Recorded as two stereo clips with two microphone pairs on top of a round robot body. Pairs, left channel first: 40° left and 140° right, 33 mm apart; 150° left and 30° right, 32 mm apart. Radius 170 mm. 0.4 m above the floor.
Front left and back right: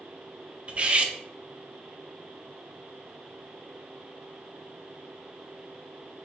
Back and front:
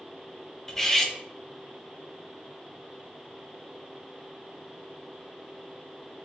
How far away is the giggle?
I don't hear a giggle.